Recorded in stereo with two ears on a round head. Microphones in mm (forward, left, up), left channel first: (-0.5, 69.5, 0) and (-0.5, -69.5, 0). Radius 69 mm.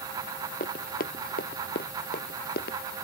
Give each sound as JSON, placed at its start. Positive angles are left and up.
{"t": 0.6, "sound": "running footsteps", "side_deg": 60}